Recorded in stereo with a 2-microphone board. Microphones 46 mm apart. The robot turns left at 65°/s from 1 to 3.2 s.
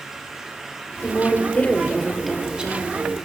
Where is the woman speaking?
80° left, 2 m; by 3.1 s 55° right, 2 m.